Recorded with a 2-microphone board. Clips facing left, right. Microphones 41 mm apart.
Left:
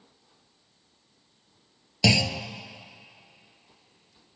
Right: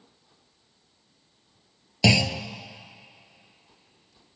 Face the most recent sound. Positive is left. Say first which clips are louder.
# right 2 dB
turn(degrees=-10)  # may be behind; listen again after turning